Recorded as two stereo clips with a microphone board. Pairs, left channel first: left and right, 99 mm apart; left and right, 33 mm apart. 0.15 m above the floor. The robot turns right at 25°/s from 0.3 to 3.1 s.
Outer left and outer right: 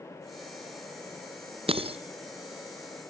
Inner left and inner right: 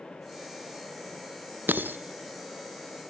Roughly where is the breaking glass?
Right.